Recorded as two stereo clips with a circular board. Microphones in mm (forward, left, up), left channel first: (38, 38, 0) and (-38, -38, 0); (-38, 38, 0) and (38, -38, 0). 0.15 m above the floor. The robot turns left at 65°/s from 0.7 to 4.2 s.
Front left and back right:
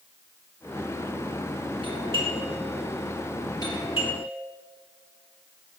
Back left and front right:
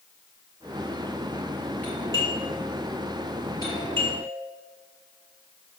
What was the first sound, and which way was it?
A doorbell, 150° right.